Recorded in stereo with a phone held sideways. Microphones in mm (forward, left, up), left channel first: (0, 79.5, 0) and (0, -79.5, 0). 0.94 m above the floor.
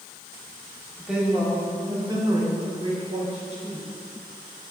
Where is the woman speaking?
5° right (ahead or behind), 2.5 m; by 3.9 s 50° right (ahead or behind), 4 m.